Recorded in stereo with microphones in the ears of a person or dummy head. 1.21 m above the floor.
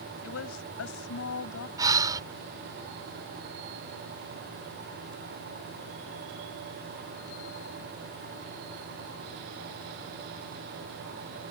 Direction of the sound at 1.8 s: 15° right (ahead or behind).